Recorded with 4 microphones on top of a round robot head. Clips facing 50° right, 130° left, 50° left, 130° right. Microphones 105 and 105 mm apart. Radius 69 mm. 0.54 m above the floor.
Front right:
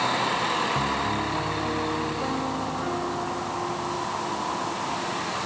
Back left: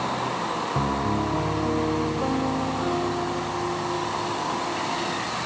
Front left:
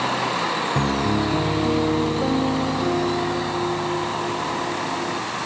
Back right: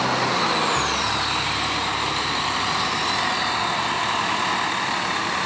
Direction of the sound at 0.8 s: 60° left.